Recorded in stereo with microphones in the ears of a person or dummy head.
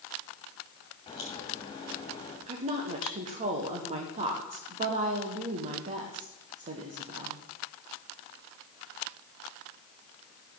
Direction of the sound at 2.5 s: 30° right (ahead or behind).